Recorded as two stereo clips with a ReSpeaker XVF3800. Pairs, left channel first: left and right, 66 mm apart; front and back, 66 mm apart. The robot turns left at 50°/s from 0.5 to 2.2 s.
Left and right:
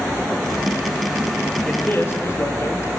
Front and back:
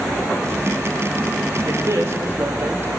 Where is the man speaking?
160° left, 4 m; by 2.9 s 130° left, 4 m.